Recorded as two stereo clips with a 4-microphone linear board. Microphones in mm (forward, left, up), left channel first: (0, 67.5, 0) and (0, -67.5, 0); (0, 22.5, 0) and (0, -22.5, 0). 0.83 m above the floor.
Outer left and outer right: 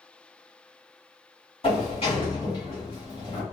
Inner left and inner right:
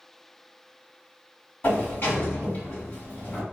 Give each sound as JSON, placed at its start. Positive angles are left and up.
{"t": 1.6, "sound": "a sliding door", "side_deg": 40, "distance_m": 1.7}